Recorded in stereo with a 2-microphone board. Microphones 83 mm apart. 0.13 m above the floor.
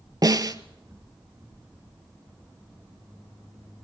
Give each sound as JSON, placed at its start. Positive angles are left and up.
{"t": 0.2, "sound": "a snare drum", "side_deg": -45, "distance_m": 0.7}